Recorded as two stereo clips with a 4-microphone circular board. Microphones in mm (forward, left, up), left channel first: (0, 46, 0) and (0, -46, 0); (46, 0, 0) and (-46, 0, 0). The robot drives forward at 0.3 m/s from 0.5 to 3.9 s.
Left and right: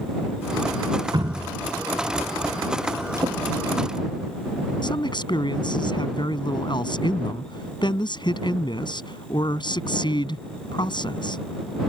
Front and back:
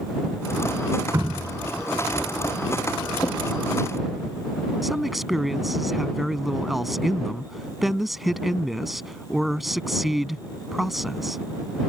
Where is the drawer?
50° right.